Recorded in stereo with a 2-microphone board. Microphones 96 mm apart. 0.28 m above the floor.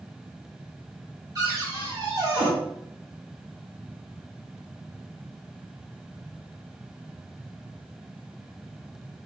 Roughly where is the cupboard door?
Right.